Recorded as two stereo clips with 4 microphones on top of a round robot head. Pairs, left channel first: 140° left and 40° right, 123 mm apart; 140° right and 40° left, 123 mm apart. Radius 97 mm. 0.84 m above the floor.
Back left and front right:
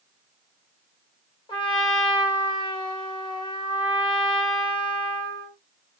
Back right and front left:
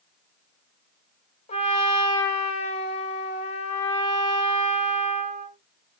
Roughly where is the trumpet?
Behind.